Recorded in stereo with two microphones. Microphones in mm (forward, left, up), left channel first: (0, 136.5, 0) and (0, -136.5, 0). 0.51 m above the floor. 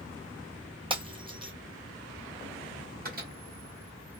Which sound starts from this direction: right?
A microwave, at 3.0 s.